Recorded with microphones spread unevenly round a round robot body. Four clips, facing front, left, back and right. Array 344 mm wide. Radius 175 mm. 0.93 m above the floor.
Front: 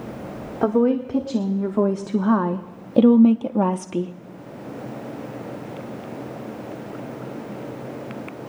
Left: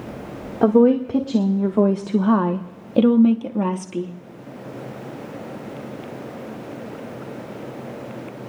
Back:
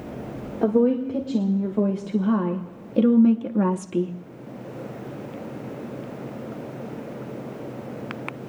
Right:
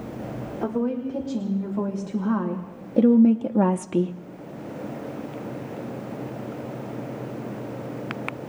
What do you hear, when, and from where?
0.6 s a woman speaking: 60° left, 1.8 m; by 4.2 s 120° right, 0.9 m